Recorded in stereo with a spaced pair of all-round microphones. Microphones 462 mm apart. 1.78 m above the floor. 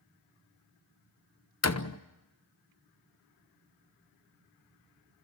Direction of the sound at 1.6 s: 35° left (ahead or behind).